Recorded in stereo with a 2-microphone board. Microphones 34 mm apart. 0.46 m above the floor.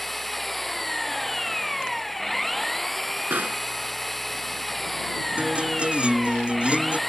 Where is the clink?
I don't hear a clink.